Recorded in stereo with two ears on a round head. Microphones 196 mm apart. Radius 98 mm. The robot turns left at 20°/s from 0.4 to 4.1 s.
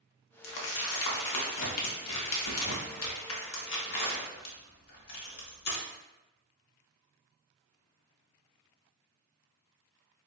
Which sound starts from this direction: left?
Crumpling, at 0.4 s.